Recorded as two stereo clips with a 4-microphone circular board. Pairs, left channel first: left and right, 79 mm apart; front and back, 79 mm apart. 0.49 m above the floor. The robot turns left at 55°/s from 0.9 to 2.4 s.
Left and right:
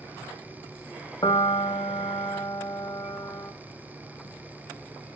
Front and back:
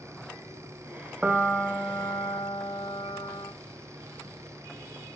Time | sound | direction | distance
1.2 | a piano | 110° left | 0.9 m